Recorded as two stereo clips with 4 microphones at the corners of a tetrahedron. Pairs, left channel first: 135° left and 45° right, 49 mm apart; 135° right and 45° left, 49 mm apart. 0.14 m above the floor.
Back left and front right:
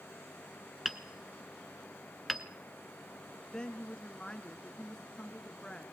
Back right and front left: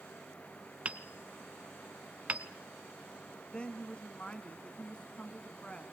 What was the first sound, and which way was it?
Hammering, 35° left.